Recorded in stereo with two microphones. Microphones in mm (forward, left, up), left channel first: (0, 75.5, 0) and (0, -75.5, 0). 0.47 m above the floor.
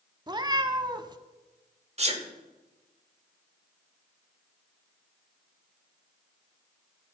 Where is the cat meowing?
30° right (ahead or behind), 0.6 m.